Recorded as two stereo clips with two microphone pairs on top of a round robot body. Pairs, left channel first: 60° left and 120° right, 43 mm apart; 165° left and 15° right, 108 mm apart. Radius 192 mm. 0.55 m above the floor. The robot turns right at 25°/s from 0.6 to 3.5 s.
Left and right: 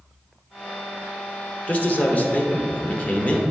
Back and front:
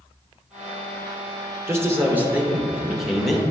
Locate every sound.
1.7 s a man speaking: 35° left, 1.4 m; by 3.4 s 80° left, 1.4 m